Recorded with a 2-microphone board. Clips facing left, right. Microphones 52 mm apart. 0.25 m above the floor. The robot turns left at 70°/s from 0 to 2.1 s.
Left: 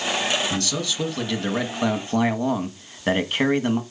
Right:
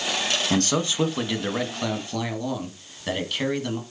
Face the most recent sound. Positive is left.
turn(degrees=135)